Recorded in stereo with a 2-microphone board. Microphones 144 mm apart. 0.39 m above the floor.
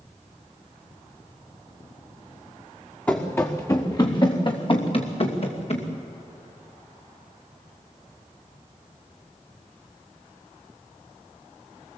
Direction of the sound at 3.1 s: 15° left (ahead or behind).